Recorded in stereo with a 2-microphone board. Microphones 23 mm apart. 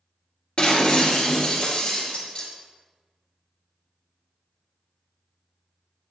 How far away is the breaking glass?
About 1.9 m.